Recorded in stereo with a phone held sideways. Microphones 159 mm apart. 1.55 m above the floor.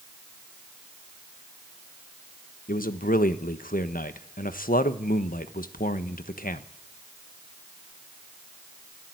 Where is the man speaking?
60° left (ahead or behind), 1.3 m.